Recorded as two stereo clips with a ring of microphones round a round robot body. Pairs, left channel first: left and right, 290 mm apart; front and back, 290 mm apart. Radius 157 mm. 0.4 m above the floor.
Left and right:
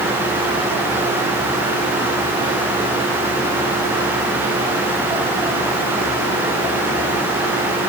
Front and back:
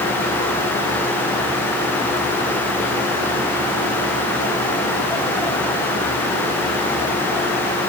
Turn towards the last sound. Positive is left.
No sound to turn to.